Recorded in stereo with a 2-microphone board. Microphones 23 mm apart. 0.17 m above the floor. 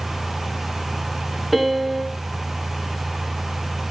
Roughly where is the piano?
Centre.